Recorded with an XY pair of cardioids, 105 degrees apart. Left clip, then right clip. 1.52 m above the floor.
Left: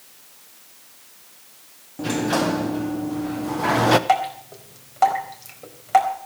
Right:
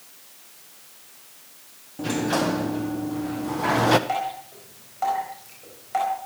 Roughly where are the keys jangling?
No keys jangling in this recording.